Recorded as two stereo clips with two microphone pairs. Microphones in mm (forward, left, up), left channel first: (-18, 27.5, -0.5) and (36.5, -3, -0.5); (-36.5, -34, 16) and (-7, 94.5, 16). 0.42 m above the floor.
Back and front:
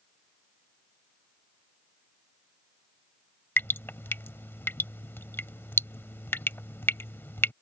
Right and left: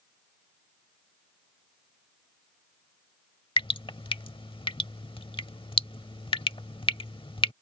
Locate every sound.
3.6 s dripping: 155° right